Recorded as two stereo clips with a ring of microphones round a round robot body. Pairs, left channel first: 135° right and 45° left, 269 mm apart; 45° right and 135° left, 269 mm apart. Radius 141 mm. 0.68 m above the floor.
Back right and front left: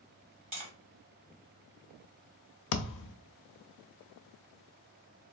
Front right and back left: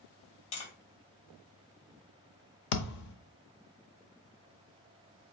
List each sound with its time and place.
0.5 s tapping: 15° right, 2 m
2.7 s a thud: 90° right, 0.5 m